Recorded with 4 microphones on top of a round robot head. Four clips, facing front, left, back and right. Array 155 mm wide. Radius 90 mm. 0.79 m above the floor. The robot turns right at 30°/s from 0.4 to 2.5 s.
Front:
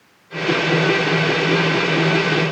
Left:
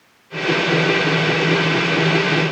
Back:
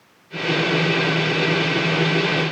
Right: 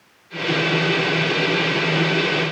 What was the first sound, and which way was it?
Only background noise.